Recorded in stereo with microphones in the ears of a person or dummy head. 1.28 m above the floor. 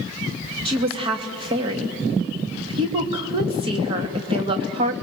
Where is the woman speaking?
25° right (ahead or behind), 2 m.